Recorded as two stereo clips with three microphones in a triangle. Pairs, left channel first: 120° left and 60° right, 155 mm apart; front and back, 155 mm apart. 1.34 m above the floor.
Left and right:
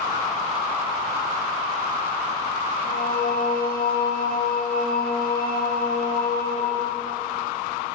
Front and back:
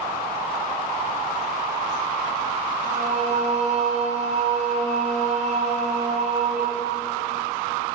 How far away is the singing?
About 4 m.